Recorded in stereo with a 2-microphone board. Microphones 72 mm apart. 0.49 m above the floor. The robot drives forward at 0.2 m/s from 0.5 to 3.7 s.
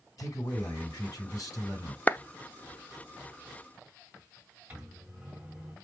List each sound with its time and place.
0.2 s a man speaking: 55° left (ahead or behind), 4 m; by 2.0 s 50° left (ahead or behind), 4.5 m
2.1 s a clap: 25° left (ahead or behind), 0.7 m
4.7 s a microwave: 15° right (ahead or behind), 2.5 m